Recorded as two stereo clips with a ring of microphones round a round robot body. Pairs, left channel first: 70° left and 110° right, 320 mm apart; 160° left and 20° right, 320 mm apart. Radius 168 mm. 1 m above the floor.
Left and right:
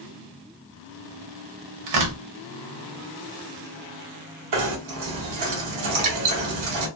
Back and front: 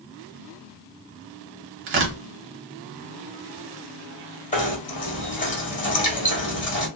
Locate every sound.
1.9 s tearing paper: 75° right, 1.0 m
4.5 s knocking: 135° right, 1.5 m